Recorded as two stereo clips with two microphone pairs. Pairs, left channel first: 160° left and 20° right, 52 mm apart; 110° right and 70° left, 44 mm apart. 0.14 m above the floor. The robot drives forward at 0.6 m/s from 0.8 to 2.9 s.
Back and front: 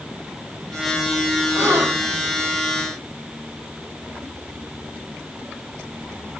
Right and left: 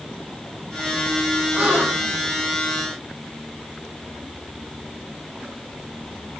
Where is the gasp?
15° left, 6 m; by 2.2 s 20° left, 5.5 m.